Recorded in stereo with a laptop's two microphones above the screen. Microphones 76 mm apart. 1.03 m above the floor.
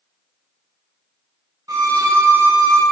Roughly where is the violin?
Right.